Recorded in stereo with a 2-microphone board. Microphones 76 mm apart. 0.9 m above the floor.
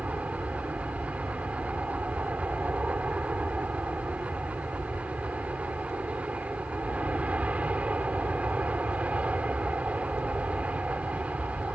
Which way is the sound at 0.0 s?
15° right (ahead or behind).